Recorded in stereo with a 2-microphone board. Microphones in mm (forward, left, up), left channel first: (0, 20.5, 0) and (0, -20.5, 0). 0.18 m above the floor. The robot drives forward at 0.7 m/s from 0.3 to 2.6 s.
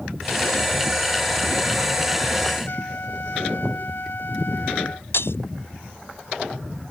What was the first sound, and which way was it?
A trumpet, 55° left (ahead or behind).